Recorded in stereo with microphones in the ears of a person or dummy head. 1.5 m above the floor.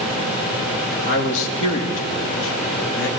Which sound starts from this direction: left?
A man speaking, at 1.1 s.